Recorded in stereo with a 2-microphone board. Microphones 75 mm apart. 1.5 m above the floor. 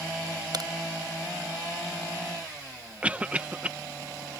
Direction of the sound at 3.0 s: 20° right (ahead or behind).